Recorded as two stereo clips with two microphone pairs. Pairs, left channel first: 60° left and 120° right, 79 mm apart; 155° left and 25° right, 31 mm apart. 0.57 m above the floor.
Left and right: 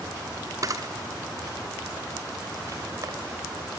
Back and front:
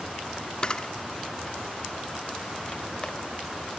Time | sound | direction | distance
0.6 | a camera shutter | 150° right | 0.7 m